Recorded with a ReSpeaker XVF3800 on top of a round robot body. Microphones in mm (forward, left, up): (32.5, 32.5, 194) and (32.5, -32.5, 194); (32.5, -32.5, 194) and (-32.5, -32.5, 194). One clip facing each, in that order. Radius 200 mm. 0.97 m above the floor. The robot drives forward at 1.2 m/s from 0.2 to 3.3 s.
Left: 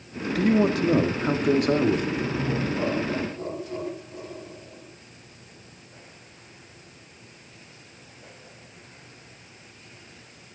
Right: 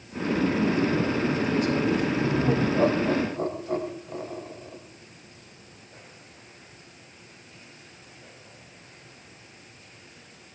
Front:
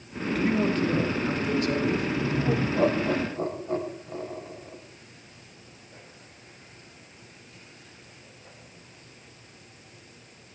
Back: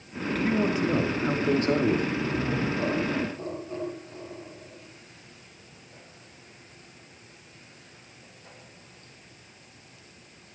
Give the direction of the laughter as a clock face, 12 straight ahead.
1 o'clock.